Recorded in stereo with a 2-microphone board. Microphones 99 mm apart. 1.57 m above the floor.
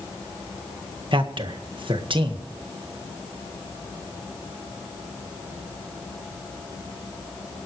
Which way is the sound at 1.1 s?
60° right (ahead or behind).